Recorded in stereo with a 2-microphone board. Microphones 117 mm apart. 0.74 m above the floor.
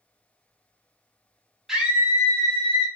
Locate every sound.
1.7 s a scream: 5° right (ahead or behind), 0.9 m; by 2.9 s 50° right (ahead or behind), 1.1 m